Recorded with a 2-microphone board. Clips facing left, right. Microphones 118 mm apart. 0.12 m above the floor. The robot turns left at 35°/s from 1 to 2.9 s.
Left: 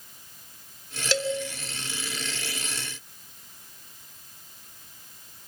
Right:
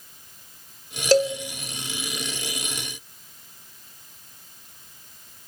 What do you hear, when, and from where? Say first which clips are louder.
1.1 s a cowbell: right 9 dB; 40° right (ahead or behind), 1.3 m; by 1.4 s 35° right (ahead or behind), 1.3 m